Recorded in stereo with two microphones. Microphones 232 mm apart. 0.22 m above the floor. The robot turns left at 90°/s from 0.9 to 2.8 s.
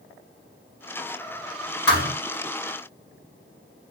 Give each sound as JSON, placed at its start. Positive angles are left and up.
{"t": 1.9, "sound": "a thud", "side_deg": 75, "distance_m": 2.5}